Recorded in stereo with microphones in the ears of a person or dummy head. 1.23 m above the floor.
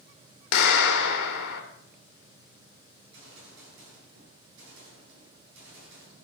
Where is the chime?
No chime in this recording.